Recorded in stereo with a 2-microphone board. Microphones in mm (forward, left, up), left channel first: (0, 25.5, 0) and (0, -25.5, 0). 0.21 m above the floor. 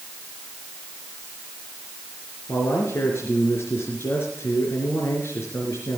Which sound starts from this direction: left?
A man speaking, at 2.5 s.